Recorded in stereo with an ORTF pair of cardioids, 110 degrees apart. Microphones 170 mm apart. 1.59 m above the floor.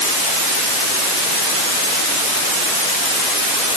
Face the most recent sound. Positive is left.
No sound to turn to.